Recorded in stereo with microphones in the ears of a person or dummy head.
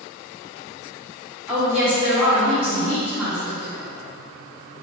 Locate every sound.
1.5 s a woman speaking: 5° left (ahead or behind), 1.7 m